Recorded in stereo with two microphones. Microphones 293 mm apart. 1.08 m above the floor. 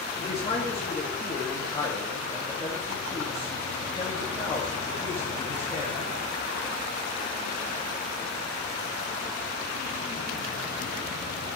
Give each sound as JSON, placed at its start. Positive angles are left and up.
{"t": 0.2, "sound": "a man speaking", "side_deg": 20, "distance_m": 1.9}